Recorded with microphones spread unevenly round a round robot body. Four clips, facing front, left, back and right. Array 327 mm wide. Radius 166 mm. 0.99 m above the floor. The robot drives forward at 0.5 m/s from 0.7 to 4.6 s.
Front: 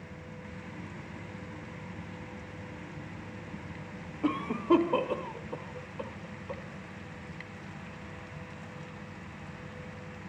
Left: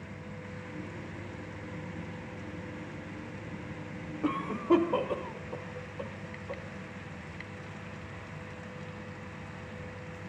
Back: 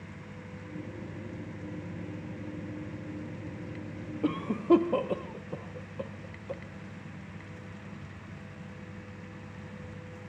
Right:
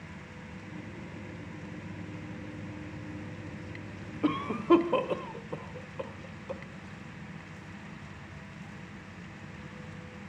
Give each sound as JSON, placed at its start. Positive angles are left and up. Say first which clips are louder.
{"t": 4.2, "sound": "a cough", "louder": "right 3 dB, back 1 dB", "azimuth_deg": -155, "distance_m": 0.9}